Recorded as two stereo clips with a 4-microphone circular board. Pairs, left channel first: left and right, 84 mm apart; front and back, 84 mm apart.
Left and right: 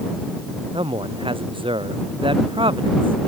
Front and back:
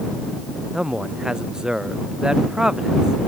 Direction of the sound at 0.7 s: 95° right.